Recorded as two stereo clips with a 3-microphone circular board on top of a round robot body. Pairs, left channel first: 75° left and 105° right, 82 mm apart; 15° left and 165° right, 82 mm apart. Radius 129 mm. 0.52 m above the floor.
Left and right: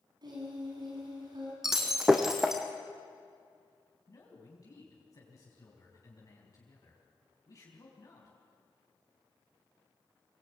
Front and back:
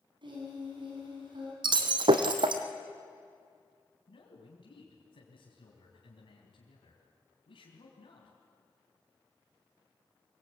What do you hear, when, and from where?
0.2 s singing: 140° right, 5.5 m
1.6 s breaking glass: 170° left, 1.4 m
4.1 s a man speaking: 25° left, 4 m